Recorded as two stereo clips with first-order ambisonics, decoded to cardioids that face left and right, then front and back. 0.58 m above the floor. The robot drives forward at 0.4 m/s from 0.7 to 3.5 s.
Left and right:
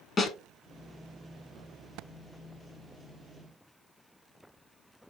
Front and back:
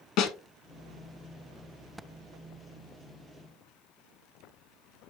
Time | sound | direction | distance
0.2 | a snare drum | 25° left | 0.8 m